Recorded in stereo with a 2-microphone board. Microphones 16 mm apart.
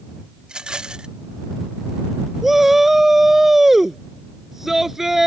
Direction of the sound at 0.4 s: 75° right (ahead or behind).